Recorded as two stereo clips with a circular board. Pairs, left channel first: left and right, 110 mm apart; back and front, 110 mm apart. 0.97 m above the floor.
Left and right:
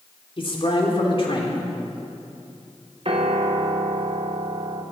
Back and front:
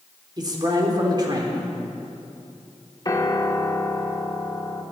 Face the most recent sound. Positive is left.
turn(degrees=-125)